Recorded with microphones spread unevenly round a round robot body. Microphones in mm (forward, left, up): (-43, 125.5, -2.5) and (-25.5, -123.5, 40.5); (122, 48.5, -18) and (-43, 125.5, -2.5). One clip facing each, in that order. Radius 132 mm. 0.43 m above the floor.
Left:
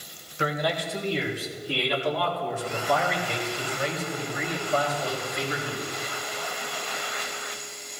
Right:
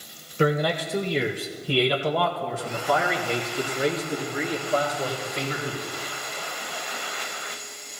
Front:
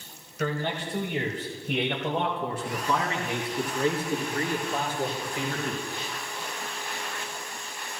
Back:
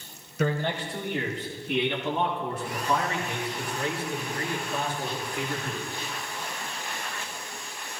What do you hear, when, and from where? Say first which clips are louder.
0.4 s a man speaking: right 6 dB, back 2 dB; 140° right, 1.8 m; by 5.8 s 25° right, 7 m